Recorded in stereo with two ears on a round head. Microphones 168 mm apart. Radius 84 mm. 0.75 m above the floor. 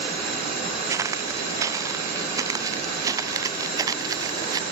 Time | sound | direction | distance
0.9 | footsteps | 20° right (ahead or behind) | ?